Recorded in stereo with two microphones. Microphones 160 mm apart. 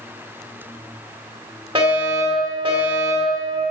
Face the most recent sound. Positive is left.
turn(degrees=-35)  # may be behind; listen again after turning